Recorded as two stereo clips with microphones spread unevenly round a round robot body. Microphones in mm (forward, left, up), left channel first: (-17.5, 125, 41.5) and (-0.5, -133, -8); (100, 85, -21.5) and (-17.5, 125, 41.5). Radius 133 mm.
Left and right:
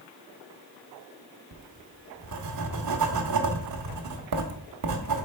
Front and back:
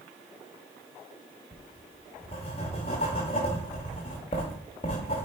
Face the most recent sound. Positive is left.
turn(degrees=-70)